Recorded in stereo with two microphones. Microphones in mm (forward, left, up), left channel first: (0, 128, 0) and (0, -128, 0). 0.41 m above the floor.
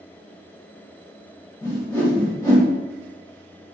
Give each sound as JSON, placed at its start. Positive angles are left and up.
{"t": 1.6, "sound": "a whoosh", "side_deg": 15, "distance_m": 1.6}